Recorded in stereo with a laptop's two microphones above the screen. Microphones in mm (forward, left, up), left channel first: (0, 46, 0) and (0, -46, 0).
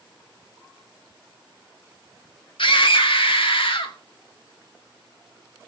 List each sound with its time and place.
2.6 s a scream: 65° left (ahead or behind), 1.7 m; by 4.0 s 70° left (ahead or behind), 2.5 m